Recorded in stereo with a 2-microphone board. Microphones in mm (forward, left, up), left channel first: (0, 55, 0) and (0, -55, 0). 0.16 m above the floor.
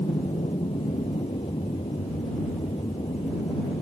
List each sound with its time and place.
0.0 s an aircraft: 65° left (ahead or behind)